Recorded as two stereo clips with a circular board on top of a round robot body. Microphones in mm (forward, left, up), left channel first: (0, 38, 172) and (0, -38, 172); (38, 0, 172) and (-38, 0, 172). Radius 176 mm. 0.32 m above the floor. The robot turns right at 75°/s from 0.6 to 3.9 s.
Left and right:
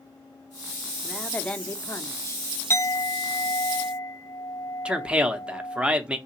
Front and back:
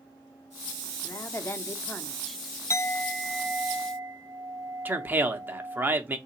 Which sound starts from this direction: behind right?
A man speaking, at 4.8 s.